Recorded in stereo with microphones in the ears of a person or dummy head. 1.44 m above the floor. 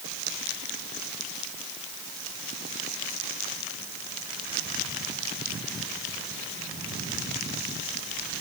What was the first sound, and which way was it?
Only background noise.